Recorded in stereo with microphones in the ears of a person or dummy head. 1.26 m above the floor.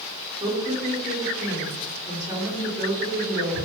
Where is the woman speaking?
20° right (ahead or behind), 1.6 m.